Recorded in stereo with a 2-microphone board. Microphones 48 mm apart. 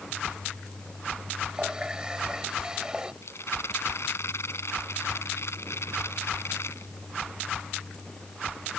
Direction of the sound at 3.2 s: 65° left (ahead or behind).